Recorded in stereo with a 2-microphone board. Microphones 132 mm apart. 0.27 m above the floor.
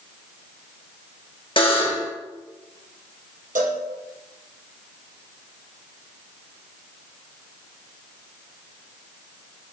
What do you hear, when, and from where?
1.6 s a buzzer: 40° left (ahead or behind), 3 m
3.5 s a cowbell: 85° right, 4 m